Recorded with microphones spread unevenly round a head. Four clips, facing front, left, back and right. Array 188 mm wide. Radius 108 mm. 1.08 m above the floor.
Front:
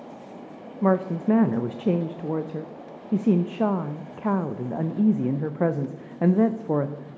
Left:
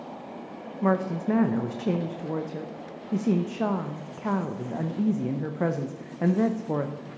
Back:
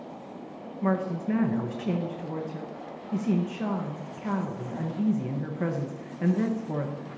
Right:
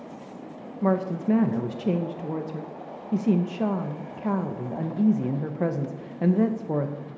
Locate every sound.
0.8 s a woman speaking: straight ahead, 0.5 m